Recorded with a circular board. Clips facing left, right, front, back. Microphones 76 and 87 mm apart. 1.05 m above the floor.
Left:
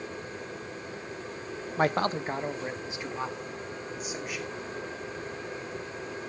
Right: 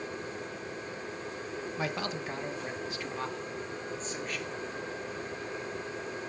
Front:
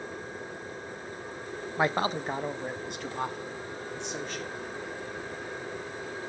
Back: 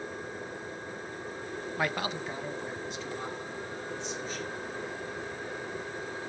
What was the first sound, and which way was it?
A man speaking, 65° left.